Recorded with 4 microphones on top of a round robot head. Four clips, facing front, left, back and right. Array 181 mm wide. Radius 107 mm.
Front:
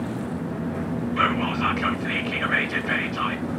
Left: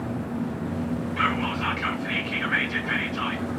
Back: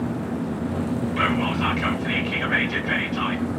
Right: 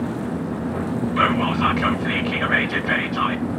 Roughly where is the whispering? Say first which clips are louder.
Right 8 dB, front 1 dB; right.